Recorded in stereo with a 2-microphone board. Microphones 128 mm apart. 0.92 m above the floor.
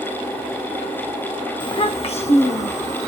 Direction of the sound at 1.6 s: 35° left (ahead or behind).